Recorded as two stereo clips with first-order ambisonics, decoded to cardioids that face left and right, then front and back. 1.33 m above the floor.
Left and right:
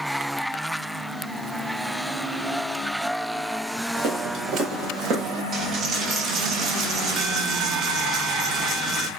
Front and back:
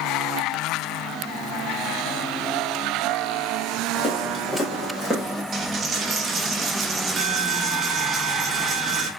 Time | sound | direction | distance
3.9 | footsteps | 70° right | 2 m
5.5 | a dropped coin | 130° right | 0.8 m